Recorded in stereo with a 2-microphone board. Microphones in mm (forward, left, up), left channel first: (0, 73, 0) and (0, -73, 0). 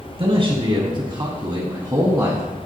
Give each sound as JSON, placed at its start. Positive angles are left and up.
{"t": 0.2, "sound": "a man speaking", "side_deg": -40, "distance_m": 1.4}